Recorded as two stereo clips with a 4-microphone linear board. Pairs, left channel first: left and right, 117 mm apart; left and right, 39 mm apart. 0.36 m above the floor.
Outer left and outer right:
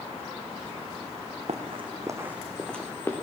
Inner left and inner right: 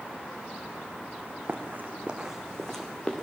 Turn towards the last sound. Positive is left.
turn(degrees=20)  # may be behind; listen again after turning